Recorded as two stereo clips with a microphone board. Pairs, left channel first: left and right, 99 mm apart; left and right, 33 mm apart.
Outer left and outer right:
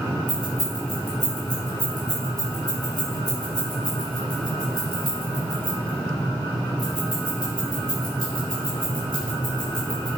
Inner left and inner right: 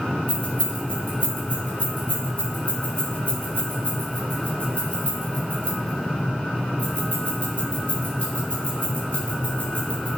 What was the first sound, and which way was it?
Keys jangling, 45° left (ahead or behind).